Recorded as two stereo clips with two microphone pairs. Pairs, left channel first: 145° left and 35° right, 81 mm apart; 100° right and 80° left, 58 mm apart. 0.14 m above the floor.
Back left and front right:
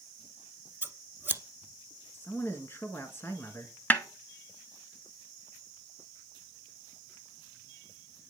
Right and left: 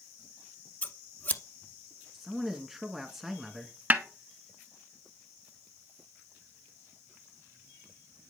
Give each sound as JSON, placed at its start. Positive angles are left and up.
{"t": 0.8, "sound": "scissors", "azimuth_deg": -80, "distance_m": 0.9}
{"t": 2.1, "sound": "a man speaking", "azimuth_deg": 165, "distance_m": 1.9}
{"t": 3.9, "sound": "a snare drum", "azimuth_deg": 105, "distance_m": 1.1}